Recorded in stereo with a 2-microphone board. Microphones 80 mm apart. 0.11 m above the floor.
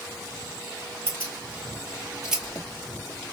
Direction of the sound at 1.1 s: 30° right (ahead or behind).